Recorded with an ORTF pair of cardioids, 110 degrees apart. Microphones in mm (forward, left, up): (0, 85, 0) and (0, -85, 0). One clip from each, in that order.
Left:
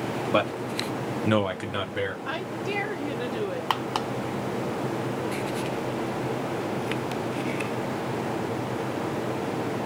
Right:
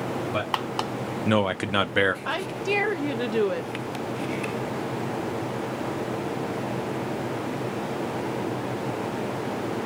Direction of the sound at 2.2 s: 30° right.